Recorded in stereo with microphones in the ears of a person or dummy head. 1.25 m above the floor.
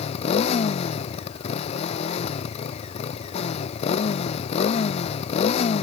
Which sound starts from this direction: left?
A motorcycle, at 0.0 s.